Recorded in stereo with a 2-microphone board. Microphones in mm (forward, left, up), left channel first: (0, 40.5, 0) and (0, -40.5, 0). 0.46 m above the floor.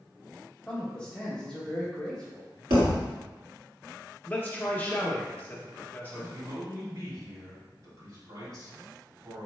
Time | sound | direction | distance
0.7 | a man speaking | 10° left (ahead or behind) | 1.2 m
2.7 | a thud | 85° right | 1.3 m
4.2 | a man speaking | 20° left (ahead or behind) | 0.7 m
6.1 | a man speaking | 60° right (ahead or behind) | 2.0 m